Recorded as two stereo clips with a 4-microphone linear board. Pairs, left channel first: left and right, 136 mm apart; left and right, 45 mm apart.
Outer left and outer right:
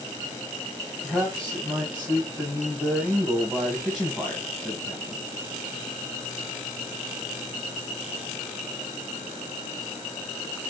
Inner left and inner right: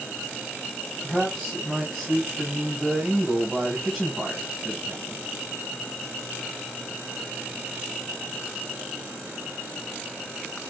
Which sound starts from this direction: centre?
A man speaking, at 1.0 s.